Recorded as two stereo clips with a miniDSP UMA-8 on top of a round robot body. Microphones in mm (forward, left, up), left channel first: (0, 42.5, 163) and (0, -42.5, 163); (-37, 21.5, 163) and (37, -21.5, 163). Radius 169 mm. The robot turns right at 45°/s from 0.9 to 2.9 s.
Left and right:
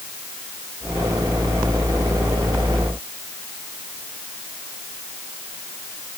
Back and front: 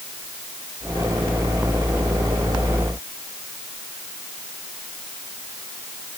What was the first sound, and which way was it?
Only background noise.